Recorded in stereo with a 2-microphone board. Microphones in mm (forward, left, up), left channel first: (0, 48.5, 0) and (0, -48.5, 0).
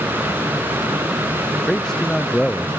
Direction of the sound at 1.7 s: 5° left (ahead or behind).